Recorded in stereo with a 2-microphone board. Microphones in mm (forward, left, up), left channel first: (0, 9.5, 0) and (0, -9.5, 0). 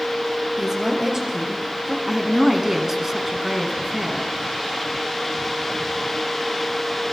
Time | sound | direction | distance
0.6 | a woman speaking | 35° right (ahead or behind) | 4 m
2.1 | a woman speaking | 15° right (ahead or behind) | 1.7 m